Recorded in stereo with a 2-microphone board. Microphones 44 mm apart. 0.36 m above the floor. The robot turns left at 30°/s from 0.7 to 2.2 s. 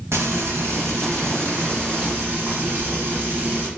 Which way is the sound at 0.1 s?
85° right.